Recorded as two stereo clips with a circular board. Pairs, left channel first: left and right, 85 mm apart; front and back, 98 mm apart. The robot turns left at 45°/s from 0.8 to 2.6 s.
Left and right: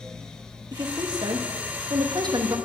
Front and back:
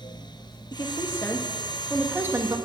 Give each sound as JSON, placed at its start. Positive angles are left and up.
{"t": 0.7, "sound": "a woman speaking", "azimuth_deg": -45, "distance_m": 1.4}